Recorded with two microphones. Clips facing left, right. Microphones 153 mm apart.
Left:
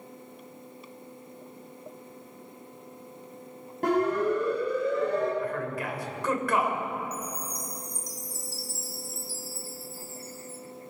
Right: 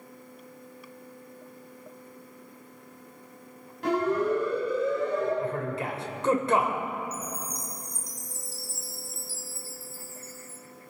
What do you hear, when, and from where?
3.8 s a siren: 50° left (ahead or behind), 5.5 m; by 5.3 s 70° left (ahead or behind), 5.5 m
5.4 s a man speaking: 25° right (ahead or behind), 2.5 m
7.1 s a chime: 40° left (ahead or behind), 2 m